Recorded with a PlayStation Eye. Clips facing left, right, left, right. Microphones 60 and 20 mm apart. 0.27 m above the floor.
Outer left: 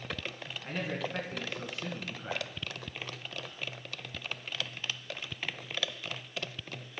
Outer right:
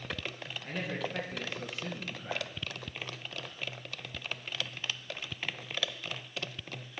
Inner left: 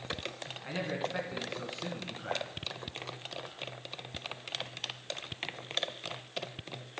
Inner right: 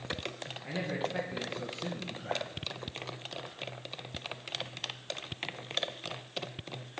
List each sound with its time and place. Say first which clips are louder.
0.6 s a man speaking: outer left 1 dB, even; 40° left (ahead or behind), 2.5 m